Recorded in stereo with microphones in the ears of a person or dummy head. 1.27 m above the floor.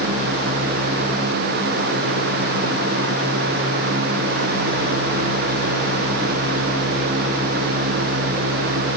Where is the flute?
No flute in this recording.